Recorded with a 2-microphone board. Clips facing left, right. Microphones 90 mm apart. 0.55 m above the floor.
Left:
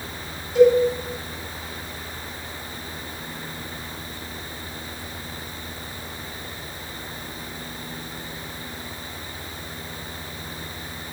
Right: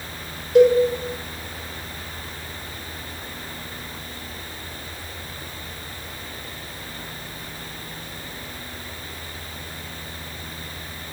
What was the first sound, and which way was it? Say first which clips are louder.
A cowbell: right 1 dB; 60° right (ahead or behind).